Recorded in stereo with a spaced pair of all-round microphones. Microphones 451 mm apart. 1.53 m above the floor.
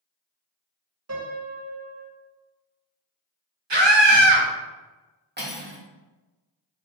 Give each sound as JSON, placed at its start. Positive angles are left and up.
{"t": 1.1, "sound": "a piano", "side_deg": -35, "distance_m": 0.8}
{"t": 3.7, "sound": "a scream", "side_deg": -65, "distance_m": 1.0}
{"t": 5.4, "sound": "cutlery clinking", "side_deg": -20, "distance_m": 1.0}